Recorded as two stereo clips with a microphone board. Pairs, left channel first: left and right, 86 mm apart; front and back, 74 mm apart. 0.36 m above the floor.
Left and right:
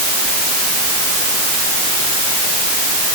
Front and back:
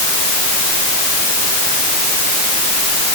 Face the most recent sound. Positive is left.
No sound to turn to.